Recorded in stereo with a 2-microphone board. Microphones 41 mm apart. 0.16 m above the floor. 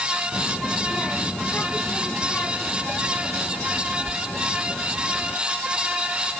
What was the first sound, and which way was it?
A child speaking, 30° left (ahead or behind).